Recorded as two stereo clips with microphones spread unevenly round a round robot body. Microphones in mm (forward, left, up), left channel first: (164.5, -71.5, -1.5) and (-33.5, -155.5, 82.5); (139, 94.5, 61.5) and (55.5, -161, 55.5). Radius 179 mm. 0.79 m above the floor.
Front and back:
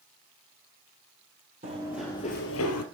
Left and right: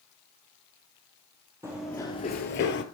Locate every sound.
1.6 s running footsteps: 170° left, 1.2 m; by 2.8 s 40° left, 1.2 m